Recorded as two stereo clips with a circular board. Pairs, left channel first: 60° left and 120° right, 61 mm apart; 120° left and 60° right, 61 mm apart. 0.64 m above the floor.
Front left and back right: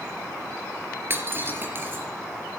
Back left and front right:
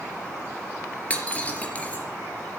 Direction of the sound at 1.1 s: 175° right.